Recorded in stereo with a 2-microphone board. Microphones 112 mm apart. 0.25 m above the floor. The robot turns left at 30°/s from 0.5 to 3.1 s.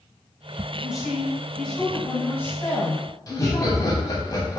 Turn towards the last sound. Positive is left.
turn(degrees=35)  # may be behind; listen again after turning